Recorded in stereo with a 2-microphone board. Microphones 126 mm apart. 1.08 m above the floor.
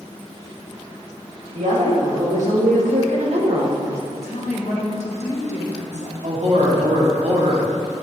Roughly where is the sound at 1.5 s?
Right.